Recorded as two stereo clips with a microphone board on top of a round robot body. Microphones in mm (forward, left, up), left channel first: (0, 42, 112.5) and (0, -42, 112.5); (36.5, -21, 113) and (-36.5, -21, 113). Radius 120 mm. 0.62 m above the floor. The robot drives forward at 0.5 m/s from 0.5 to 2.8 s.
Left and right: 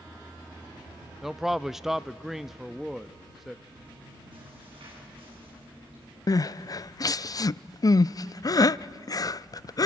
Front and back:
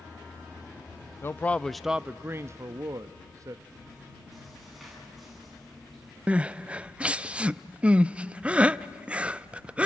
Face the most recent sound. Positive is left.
turn(degrees=110)